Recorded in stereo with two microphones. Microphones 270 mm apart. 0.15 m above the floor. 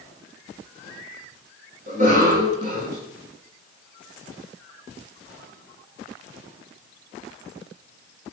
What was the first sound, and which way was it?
A cough, 30° right (ahead or behind).